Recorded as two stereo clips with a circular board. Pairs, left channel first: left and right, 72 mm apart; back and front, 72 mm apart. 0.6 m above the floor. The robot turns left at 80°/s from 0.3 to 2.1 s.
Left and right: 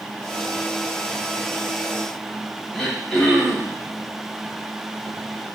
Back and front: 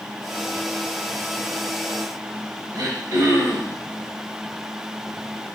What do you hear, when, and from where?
2.7 s throat clearing: 5° left, 0.8 m